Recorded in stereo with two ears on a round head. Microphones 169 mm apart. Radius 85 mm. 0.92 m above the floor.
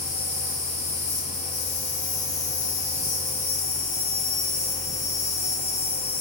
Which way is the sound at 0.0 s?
60° left (ahead or behind).